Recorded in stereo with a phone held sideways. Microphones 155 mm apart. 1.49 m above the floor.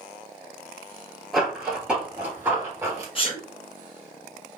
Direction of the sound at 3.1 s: 35° left (ahead or behind).